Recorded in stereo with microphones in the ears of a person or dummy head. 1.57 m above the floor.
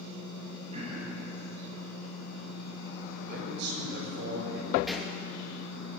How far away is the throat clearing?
About 10 m.